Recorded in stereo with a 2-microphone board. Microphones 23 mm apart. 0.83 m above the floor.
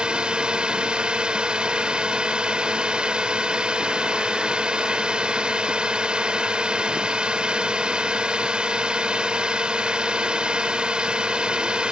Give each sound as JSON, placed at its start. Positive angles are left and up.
{"t": 0.0, "sound": "a drone", "side_deg": -50}